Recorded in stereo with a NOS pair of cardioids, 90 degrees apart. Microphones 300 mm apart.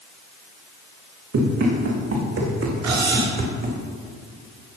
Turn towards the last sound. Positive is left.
turn(degrees=-60)